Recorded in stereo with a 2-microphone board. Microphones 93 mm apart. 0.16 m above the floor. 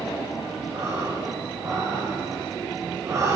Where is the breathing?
35° right (ahead or behind), 9.5 m.